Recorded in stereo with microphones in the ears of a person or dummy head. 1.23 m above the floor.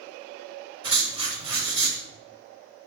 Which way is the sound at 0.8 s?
20° right (ahead or behind).